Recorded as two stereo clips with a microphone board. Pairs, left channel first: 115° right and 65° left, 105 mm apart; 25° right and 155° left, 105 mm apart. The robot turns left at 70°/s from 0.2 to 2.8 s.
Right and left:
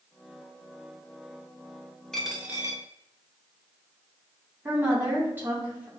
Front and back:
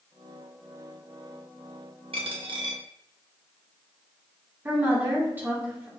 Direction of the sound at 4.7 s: 110° left.